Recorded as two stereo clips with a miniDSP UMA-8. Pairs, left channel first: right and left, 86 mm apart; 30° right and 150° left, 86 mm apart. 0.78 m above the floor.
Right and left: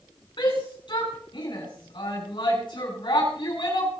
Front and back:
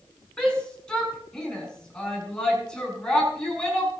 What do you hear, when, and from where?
0.4 s a shout: 110° right, 6.5 m